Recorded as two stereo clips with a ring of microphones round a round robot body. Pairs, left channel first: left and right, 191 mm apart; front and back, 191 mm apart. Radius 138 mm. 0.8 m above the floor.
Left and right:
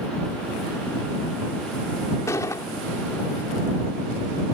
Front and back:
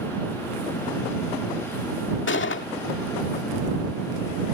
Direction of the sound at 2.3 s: 10° left.